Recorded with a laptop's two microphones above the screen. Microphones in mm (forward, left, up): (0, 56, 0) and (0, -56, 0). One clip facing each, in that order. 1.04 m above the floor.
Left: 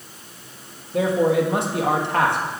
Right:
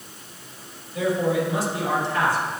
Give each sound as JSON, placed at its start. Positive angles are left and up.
{"t": 0.9, "sound": "a man speaking", "side_deg": 60, "distance_m": 1.5}